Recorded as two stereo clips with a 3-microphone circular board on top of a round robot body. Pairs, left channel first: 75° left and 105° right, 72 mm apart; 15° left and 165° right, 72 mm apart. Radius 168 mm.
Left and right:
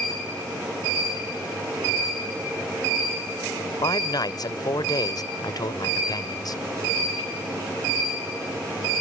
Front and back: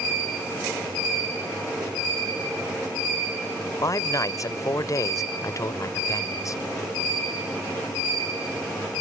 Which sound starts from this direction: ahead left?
A man speaking, at 3.8 s.